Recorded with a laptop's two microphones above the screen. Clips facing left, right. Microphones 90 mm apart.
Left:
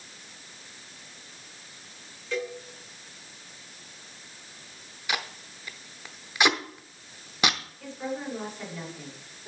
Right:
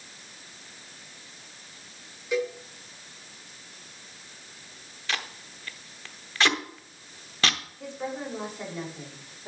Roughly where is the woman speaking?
Right.